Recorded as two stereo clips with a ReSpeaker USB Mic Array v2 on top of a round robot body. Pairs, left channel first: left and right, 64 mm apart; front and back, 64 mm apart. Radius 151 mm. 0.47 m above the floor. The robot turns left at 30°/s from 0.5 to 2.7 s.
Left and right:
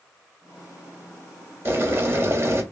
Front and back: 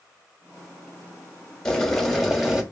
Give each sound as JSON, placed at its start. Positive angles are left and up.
{"t": 1.6, "sound": "boiling", "azimuth_deg": -75, "distance_m": 1.3}